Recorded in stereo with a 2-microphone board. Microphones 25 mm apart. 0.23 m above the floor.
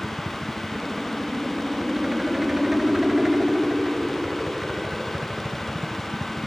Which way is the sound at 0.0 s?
20° right (ahead or behind).